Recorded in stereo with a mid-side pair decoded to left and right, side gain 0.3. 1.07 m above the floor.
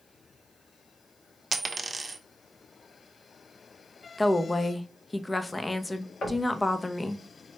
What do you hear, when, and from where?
1.5 s a dropped coin: 35° right, 0.9 m
4.2 s a woman speaking: 25° left, 0.9 m
6.2 s knocking: 55° left, 2.5 m